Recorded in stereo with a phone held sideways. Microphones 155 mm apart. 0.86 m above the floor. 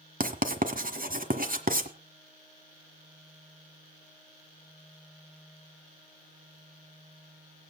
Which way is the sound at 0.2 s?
70° right (ahead or behind).